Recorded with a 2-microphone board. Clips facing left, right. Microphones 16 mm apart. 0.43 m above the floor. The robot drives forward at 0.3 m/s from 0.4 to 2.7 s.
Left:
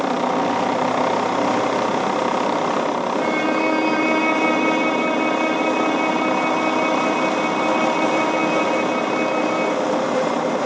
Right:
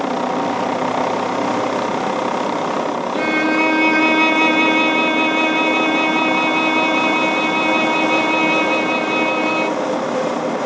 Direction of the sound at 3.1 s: 60° right (ahead or behind).